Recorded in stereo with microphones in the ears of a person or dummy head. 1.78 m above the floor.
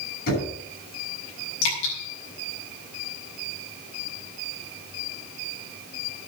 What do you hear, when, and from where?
0.3 s knocking: 60° left (ahead or behind), 6.5 m
1.6 s dripping: 65° left (ahead or behind), 5.5 m